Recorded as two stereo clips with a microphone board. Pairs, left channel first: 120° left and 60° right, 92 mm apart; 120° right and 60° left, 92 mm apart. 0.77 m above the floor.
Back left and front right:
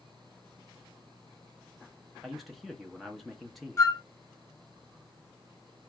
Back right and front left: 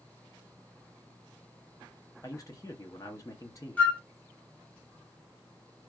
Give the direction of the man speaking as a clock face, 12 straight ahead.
5 o'clock.